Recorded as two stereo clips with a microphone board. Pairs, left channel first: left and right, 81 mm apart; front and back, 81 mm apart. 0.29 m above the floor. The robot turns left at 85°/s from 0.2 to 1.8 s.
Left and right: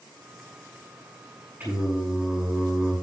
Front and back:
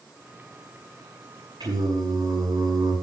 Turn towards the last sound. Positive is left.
turn(degrees=-170)